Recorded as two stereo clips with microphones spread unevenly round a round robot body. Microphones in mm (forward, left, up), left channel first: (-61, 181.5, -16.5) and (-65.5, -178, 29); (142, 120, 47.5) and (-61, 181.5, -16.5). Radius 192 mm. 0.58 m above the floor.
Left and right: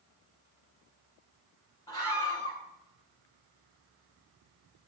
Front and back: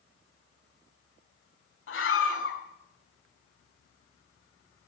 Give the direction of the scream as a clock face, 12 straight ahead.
12 o'clock.